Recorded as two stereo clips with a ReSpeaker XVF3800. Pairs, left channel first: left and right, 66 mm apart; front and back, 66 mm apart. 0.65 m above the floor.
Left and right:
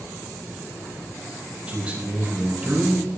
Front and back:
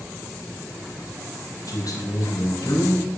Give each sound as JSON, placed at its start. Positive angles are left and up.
{"t": 1.7, "sound": "a man speaking", "azimuth_deg": -20, "distance_m": 4.5}